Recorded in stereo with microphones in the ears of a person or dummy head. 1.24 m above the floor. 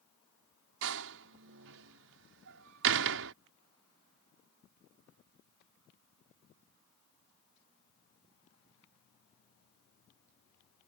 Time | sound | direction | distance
0.8 | a door slam | 75° right (ahead or behind) | ?